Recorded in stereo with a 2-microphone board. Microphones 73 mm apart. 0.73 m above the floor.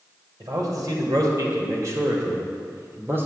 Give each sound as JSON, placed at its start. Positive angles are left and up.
{"t": 0.4, "sound": "a man speaking", "side_deg": -60, "distance_m": 3.0}